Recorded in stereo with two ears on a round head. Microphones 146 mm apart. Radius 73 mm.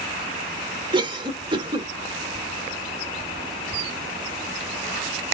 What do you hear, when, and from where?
0.9 s a cough: 30° right (ahead or behind), 1.1 m